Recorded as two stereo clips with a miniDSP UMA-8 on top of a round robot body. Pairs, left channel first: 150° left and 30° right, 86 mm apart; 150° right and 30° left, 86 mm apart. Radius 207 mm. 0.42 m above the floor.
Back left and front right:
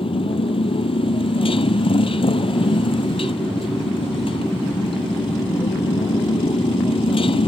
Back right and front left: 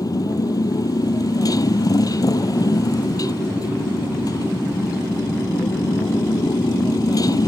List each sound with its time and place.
0.0 s a motorcycle: 165° left